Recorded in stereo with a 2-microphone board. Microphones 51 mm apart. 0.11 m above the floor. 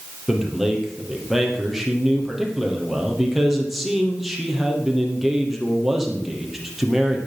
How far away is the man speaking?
About 3.5 m.